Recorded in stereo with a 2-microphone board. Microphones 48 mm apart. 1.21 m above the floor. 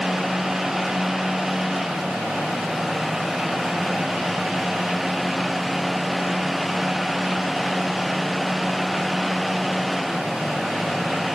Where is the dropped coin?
No dropped coin in this recording.